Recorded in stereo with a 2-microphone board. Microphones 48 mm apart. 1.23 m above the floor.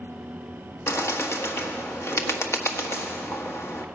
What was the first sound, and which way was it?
A bird, 65° left (ahead or behind).